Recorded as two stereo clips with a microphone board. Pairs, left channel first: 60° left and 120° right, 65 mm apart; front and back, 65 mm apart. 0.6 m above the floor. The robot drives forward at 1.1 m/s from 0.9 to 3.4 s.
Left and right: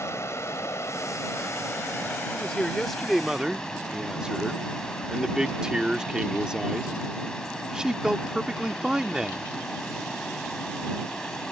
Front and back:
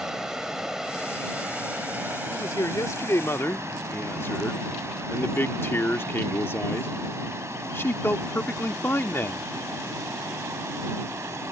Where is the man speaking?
20° right; by 9.5 s 45° right.